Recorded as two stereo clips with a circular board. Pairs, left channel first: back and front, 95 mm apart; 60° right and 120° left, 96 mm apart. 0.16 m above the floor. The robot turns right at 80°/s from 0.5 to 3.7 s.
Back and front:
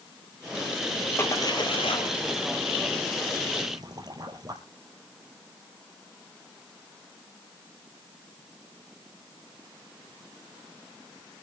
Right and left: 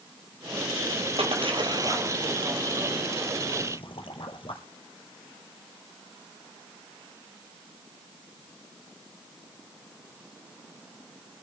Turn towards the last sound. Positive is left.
turn(degrees=-45)